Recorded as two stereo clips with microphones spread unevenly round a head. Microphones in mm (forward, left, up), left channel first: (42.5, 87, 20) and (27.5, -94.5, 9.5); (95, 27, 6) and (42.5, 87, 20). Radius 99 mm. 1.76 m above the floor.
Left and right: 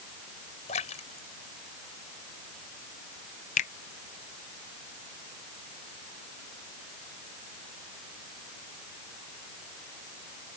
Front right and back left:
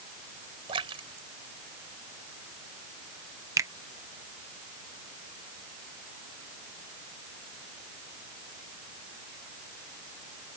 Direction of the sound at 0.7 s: 145° left.